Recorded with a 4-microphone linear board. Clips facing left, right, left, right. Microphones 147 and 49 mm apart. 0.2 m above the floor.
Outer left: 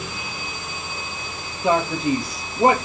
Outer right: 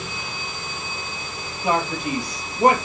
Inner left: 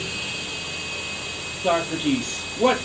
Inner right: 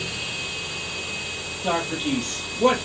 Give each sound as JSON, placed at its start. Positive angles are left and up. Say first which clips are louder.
{"t": 1.6, "sound": "a man speaking", "louder": "outer left 3 dB, inner left 3 dB", "side_deg": 25, "distance_m": 4.0}